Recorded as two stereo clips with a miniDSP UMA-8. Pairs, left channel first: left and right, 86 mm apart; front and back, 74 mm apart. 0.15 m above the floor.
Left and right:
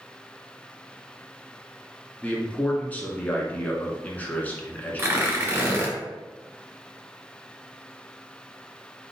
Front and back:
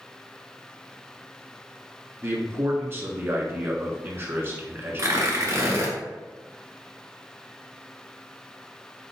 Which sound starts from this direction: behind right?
Tearing paper, at 5.0 s.